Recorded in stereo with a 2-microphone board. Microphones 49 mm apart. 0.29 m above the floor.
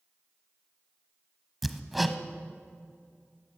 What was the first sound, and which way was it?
Hammering, centre (ahead or behind).